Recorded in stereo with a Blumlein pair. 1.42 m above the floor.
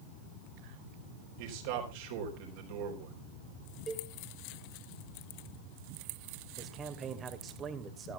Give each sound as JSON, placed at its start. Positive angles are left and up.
{"t": 1.4, "sound": "a man speaking", "azimuth_deg": -50, "distance_m": 4.5}
{"t": 3.9, "sound": "a cowbell", "azimuth_deg": -20, "distance_m": 2.5}
{"t": 6.6, "sound": "a man speaking", "azimuth_deg": -25, "distance_m": 2.0}